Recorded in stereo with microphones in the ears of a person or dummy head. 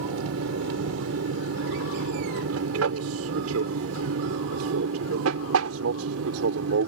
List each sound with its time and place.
0.0 s an aircraft: 75° right (ahead or behind)